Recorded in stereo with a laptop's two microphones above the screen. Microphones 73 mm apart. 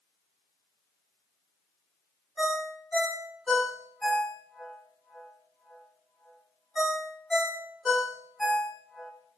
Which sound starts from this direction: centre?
A ringtone, at 2.4 s.